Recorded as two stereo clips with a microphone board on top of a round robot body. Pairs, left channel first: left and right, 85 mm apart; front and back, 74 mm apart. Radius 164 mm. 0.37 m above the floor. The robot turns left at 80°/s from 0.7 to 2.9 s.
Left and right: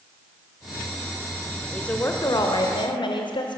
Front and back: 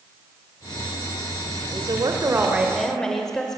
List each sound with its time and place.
1.7 s a woman speaking: 175° left, 2 m; by 3.6 s 85° left, 2 m